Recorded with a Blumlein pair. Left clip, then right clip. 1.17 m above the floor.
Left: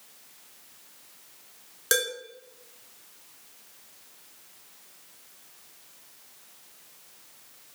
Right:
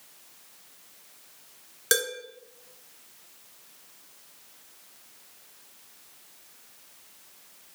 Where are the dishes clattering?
10° right, 2.5 m.